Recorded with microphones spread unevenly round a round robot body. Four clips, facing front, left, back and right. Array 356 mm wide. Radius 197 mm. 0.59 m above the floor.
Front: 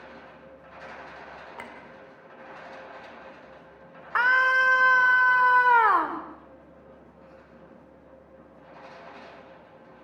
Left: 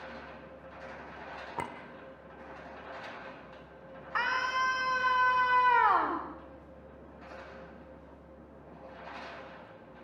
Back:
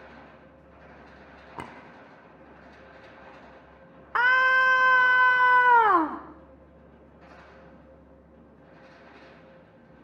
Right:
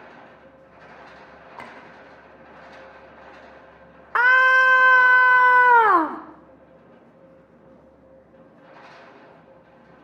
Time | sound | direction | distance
1.6 | a clink | 150° left | 0.6 m
4.2 | a scream | 115° right | 1.8 m